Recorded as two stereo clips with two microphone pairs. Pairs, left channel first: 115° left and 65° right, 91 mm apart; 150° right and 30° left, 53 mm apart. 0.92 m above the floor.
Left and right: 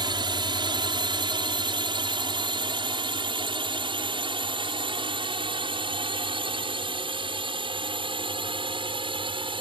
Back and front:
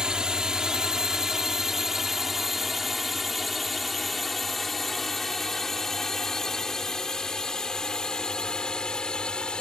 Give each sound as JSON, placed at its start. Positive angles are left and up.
{"t": 0.0, "sound": "a drone", "azimuth_deg": -45}